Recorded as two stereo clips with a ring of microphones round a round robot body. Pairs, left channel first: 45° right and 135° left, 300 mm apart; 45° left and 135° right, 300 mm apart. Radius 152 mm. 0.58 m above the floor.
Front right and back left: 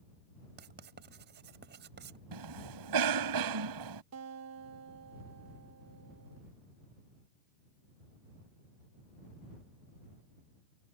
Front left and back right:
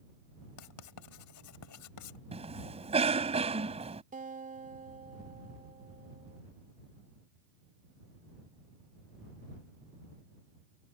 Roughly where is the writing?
Left.